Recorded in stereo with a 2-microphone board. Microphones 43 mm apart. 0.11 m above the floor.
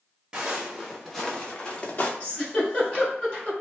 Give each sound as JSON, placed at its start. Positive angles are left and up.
{"t": 0.3, "sound": "footsteps", "side_deg": -20, "distance_m": 0.9}
{"t": 2.2, "sound": "a giggle", "side_deg": 15, "distance_m": 1.8}